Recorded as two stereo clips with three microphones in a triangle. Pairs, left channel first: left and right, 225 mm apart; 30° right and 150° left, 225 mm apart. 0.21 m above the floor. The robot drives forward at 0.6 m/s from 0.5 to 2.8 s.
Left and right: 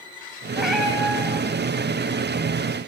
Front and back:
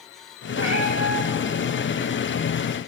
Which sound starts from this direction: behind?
A cat meowing, at 0.6 s.